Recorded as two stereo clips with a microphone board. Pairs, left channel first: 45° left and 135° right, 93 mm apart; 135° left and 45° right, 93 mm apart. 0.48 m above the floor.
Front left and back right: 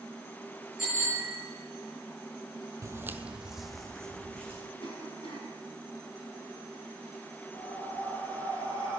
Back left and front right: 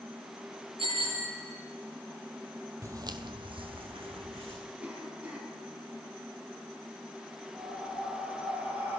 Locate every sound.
0.8 s a bicycle bell: 50° right, 7.5 m
2.8 s footsteps: 95° right, 0.7 m; by 4.6 s 35° right, 2 m
4.8 s a cough: 30° left, 5 m
7.5 s breathing: 25° left, 4 m